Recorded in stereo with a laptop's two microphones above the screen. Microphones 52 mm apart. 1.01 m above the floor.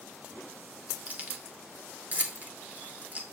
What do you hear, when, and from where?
1.1 s keys jangling: 30° right (ahead or behind), 2 m